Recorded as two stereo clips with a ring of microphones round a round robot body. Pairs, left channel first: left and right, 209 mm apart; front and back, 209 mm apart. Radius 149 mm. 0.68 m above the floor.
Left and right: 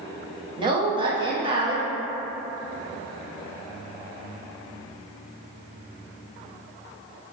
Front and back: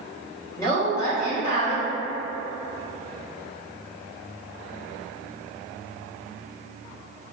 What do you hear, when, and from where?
0.6 s a woman speaking: 55° right, 0.6 m